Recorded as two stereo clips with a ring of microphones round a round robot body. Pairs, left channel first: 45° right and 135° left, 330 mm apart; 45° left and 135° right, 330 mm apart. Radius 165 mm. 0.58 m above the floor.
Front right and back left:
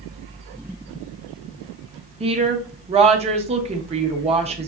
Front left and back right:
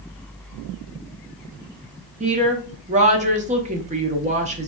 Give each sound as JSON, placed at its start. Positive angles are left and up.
{"t": 2.2, "sound": "a woman speaking", "azimuth_deg": -175, "distance_m": 0.6}